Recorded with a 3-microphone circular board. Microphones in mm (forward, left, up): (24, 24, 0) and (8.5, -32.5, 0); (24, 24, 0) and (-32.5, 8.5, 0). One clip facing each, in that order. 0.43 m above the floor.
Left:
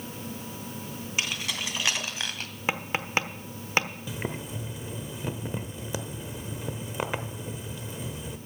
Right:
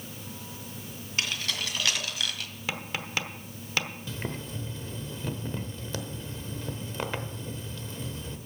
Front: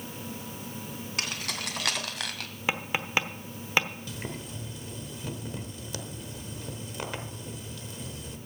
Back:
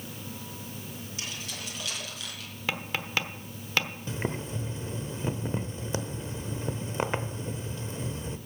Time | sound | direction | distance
1.2 | keys jangling | straight ahead | 2.5 m
2.7 | tapping | 75° left | 1.1 m
4.1 | boiling | 145° left | 0.9 m